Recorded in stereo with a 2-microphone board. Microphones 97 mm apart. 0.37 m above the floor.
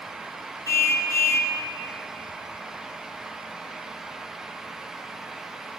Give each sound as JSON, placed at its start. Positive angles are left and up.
{"t": 0.7, "sound": "a car horn", "side_deg": 30, "distance_m": 2.0}